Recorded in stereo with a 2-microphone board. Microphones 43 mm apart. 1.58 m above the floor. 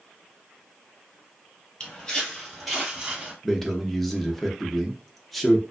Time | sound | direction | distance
1.8 | footsteps | 20° left (ahead or behind) | 1.7 m
3.4 | a man speaking | centre (ahead or behind) | 0.7 m